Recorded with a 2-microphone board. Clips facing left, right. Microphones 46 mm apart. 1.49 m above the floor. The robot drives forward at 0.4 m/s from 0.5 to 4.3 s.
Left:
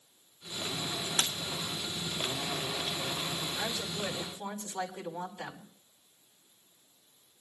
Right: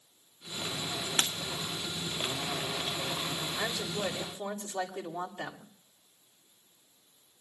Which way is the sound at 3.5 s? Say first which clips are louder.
Right 2 dB; 55° right (ahead or behind).